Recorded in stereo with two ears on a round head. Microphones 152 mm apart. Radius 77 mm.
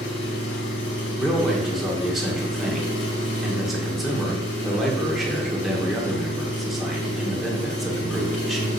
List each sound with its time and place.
0.0 s an engine running: 65° left (ahead or behind), 2.5 m
1.2 s a man speaking: centre (ahead or behind), 1.7 m